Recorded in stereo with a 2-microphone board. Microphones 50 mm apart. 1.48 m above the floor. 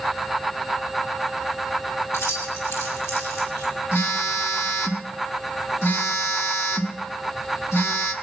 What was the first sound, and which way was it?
Keys jangling, 65° left (ahead or behind).